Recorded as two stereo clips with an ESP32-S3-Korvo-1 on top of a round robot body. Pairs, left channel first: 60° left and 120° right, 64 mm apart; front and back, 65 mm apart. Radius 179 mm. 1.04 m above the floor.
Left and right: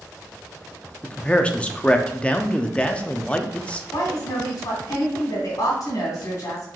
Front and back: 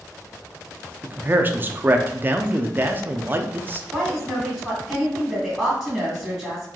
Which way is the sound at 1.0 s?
130° left.